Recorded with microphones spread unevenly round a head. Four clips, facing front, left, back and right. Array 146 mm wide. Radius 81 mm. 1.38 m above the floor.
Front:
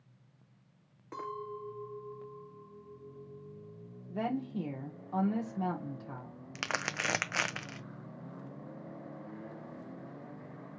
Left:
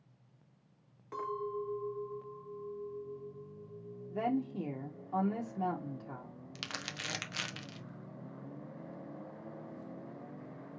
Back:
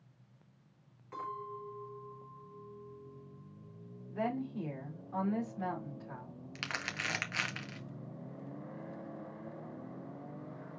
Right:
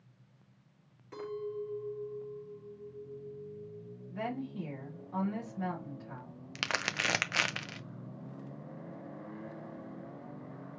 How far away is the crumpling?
About 0.6 m.